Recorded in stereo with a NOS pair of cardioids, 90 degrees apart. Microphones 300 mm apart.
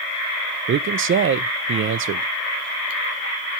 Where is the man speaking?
45° right, 0.5 m.